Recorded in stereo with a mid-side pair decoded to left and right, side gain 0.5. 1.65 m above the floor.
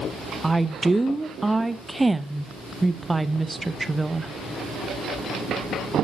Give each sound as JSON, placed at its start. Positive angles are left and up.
{"t": 0.4, "sound": "a woman speaking", "azimuth_deg": -10, "distance_m": 0.8}